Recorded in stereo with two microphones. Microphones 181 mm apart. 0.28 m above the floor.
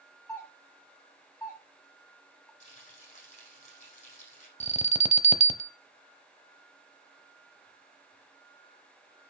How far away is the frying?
About 5 m.